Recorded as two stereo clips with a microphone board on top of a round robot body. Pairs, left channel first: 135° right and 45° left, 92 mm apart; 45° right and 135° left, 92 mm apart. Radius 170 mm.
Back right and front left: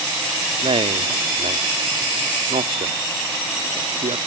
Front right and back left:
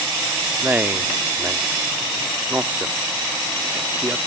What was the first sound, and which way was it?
A man speaking, 65° left.